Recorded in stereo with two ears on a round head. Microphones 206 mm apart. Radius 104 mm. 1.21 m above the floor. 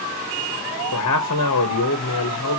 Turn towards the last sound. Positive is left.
turn(degrees=80)